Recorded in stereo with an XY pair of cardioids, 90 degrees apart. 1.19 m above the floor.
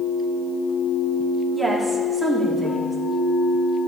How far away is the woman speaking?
About 3 m.